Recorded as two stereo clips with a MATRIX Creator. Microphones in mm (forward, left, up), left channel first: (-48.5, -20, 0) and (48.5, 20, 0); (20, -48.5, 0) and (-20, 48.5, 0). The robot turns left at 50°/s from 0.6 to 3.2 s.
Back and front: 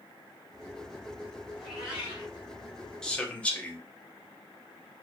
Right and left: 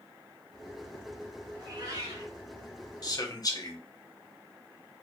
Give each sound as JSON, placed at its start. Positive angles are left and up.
{"t": 1.6, "sound": "a cat meowing", "azimuth_deg": 115, "distance_m": 1.0}
{"t": 3.0, "sound": "a man speaking", "azimuth_deg": -80, "distance_m": 0.6}